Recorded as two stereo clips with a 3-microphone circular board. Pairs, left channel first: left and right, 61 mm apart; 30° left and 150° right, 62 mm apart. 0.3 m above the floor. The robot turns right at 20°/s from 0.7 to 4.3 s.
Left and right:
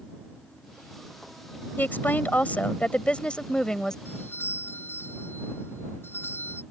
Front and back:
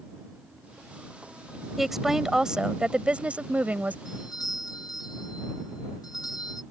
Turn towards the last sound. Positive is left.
turn(degrees=35)